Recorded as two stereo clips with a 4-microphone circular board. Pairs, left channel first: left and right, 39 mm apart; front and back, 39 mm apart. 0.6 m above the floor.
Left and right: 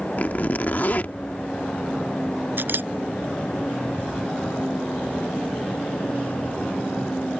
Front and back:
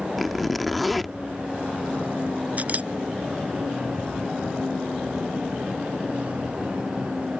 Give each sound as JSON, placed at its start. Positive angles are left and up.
{"t": 0.2, "sound": "a zipper", "azimuth_deg": 90}
{"t": 2.6, "sound": "a camera shutter", "azimuth_deg": -125}